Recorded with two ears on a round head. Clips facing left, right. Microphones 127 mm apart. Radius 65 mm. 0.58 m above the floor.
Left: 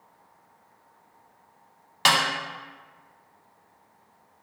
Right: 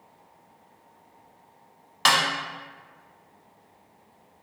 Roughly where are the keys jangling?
No keys jangling in this recording.